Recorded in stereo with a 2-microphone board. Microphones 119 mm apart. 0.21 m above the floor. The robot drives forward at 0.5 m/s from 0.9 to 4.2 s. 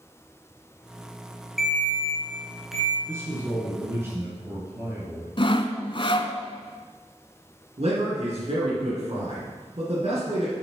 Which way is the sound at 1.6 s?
Centre (ahead or behind).